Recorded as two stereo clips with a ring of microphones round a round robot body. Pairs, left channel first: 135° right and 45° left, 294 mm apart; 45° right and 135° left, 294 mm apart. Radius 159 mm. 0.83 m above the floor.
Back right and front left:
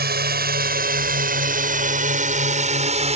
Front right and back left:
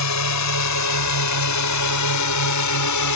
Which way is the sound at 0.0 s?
15° right.